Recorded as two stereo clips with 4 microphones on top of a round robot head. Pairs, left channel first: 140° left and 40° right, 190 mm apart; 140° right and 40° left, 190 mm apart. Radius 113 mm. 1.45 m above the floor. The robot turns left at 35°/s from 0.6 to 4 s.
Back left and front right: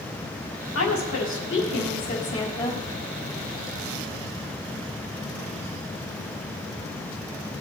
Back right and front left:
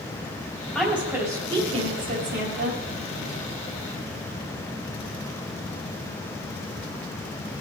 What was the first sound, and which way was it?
A woman speaking, 135° left.